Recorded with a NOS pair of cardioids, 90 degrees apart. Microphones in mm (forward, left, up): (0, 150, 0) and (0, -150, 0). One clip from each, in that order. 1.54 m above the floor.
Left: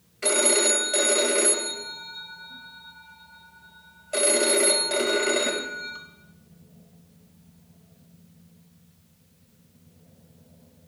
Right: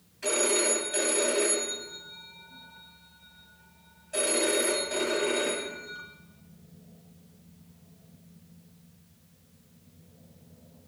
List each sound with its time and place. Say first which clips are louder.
0.2 s a phone ringing: left 4 dB; 55° left, 1.5 m